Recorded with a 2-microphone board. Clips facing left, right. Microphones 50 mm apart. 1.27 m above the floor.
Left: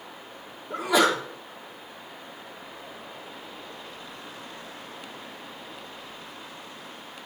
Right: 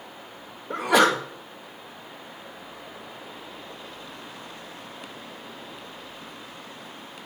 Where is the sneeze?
55° right (ahead or behind), 2.0 m.